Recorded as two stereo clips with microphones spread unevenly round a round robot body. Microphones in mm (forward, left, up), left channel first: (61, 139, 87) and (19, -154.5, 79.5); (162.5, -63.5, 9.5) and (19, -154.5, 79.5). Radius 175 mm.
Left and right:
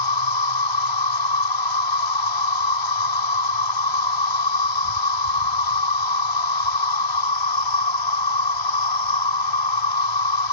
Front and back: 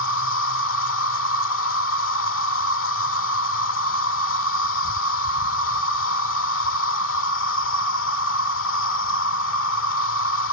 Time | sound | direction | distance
0.0 | an insect | 85° left | ?